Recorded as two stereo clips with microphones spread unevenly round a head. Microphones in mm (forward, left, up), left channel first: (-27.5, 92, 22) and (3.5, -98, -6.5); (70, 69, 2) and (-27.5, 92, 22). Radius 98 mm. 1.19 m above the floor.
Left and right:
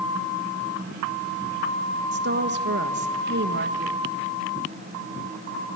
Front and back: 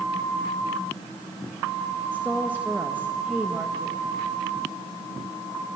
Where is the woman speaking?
110° right, 1.4 m.